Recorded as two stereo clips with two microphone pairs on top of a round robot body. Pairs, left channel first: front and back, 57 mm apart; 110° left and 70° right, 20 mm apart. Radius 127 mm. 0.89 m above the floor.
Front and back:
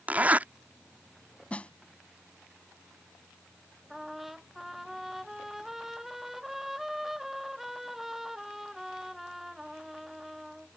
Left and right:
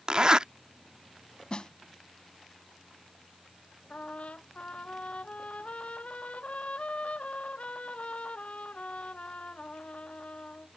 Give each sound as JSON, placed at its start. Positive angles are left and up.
{"t": 0.1, "sound": "a zipper", "azimuth_deg": -115}
{"t": 1.5, "sound": "a snare drum", "azimuth_deg": 70}
{"t": 3.9, "sound": "a trumpet", "azimuth_deg": 95}